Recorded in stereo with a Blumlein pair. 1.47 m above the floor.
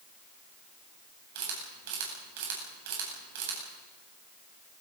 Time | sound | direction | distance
1.4 | a camera shutter | 55° right | 8.5 m